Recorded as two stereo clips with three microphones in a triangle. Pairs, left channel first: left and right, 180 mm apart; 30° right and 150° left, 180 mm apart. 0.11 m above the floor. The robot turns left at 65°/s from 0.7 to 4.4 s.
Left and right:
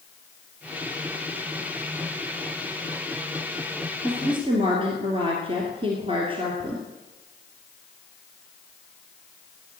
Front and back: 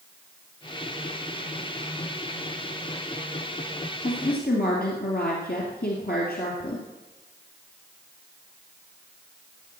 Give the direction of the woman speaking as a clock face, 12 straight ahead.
12 o'clock.